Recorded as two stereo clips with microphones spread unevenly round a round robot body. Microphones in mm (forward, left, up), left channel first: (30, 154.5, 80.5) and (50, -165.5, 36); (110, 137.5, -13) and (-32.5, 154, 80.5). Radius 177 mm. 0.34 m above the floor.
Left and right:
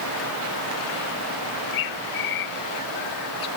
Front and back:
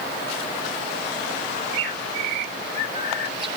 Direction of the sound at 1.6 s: 125° left.